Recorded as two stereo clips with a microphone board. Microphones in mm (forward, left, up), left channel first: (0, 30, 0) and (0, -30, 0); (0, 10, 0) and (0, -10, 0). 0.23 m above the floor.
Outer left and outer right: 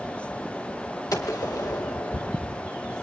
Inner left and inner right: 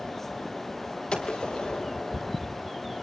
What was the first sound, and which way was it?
A gunshot, 75° left (ahead or behind).